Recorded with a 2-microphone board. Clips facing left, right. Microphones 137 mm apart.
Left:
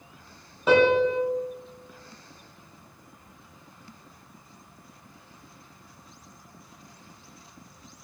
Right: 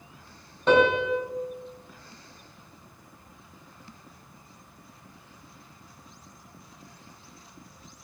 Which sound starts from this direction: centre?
A piano, at 0.7 s.